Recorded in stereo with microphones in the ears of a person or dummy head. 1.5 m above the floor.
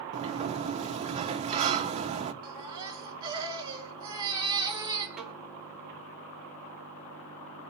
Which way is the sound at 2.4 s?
20° right (ahead or behind).